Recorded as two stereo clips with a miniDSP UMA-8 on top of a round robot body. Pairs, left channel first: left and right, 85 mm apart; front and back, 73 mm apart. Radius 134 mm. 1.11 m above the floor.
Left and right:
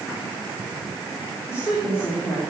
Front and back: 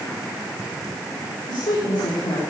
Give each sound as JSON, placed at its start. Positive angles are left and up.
{"t": 1.5, "sound": "a woman speaking", "azimuth_deg": 30, "distance_m": 4.0}